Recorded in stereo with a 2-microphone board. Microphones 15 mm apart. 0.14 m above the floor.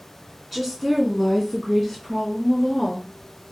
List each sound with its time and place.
0.5 s a woman speaking: centre (ahead or behind), 1.4 m; by 3.1 s 35° left (ahead or behind), 1.9 m